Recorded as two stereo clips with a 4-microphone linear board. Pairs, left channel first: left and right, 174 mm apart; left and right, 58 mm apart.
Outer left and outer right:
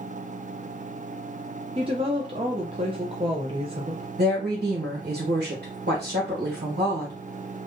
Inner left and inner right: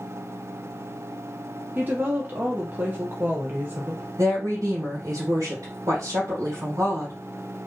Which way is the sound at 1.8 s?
35° right (ahead or behind).